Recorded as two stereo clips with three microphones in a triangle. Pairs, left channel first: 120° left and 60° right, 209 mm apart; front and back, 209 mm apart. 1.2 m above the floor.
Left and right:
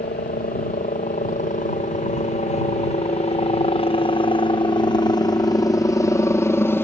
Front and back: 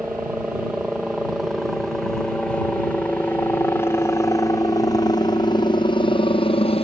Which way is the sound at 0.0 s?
100° left.